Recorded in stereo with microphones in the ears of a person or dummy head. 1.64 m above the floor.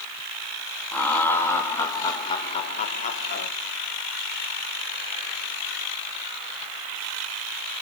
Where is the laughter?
15° left (ahead or behind), 4 m; by 3.5 s 60° left (ahead or behind), 2.0 m.